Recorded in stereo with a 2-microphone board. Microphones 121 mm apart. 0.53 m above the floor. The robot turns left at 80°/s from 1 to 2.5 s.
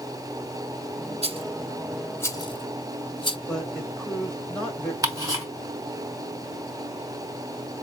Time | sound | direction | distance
1.2 | a rattle | 60° right (ahead or behind) | 0.7 m
3.5 | a woman speaking | 5° left (ahead or behind) | 2.5 m
5.0 | ticking | 25° right (ahead or behind) | 2.5 m